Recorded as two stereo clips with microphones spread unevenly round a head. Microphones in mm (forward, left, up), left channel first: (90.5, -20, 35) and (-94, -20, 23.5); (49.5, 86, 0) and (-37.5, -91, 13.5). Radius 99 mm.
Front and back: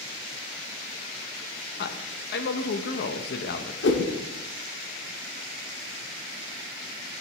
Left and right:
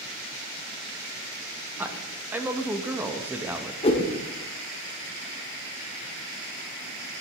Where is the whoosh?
10° left, 1.1 m.